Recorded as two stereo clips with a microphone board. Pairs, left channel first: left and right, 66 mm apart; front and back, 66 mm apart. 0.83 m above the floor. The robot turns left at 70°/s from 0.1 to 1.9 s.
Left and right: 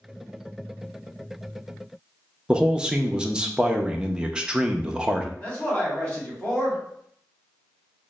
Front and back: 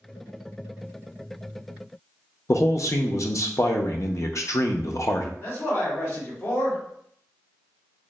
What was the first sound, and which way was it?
A man speaking, 20° right.